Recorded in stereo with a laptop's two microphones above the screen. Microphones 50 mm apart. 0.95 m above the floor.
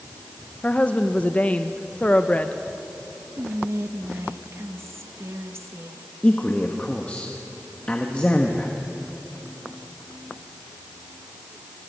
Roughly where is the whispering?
Right.